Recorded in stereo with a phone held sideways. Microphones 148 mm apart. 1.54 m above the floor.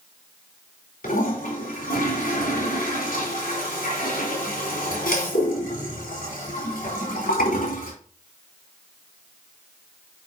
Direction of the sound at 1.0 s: 85° left.